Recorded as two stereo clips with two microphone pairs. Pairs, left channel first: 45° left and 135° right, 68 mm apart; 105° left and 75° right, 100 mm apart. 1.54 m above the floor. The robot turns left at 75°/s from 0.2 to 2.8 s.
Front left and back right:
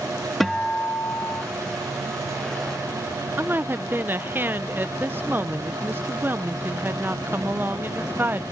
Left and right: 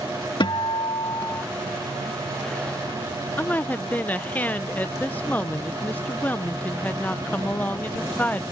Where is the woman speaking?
175° left.